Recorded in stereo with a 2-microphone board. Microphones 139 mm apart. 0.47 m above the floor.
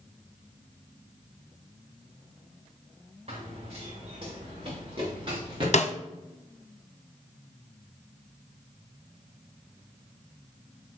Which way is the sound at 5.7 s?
50° left (ahead or behind).